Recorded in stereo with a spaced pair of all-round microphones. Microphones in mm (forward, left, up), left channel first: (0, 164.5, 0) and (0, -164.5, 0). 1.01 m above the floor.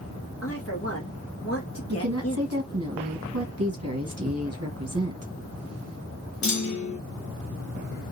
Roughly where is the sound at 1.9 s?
Right.